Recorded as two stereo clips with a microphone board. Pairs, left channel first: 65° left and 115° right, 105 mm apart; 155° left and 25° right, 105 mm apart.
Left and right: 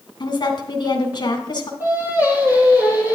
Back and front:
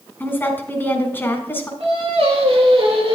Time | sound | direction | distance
0.2 | a woman speaking | 95° left | 1.7 m
1.8 | singing | 45° right | 4 m